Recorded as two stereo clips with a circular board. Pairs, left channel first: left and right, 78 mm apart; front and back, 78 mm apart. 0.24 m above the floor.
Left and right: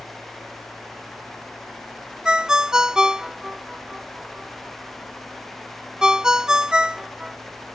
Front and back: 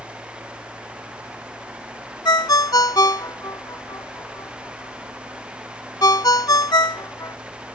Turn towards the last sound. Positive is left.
turn(degrees=-10)